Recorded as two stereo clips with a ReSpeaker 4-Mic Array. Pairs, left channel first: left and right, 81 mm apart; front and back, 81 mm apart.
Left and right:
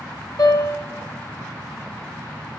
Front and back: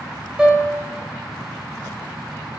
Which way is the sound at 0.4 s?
105° left.